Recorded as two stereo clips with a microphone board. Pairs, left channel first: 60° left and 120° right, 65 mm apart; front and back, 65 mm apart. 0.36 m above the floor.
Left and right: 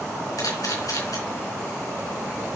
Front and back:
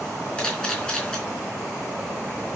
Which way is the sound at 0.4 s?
70° left.